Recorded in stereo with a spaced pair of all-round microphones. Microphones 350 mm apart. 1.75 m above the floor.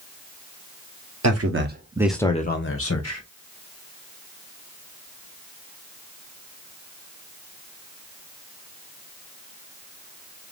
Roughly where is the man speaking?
Right.